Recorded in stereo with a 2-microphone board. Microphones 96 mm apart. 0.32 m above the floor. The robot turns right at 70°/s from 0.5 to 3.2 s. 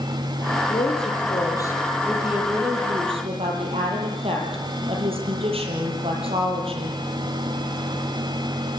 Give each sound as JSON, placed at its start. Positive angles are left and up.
{"t": 0.7, "sound": "a woman speaking", "azimuth_deg": 80, "distance_m": 8.0}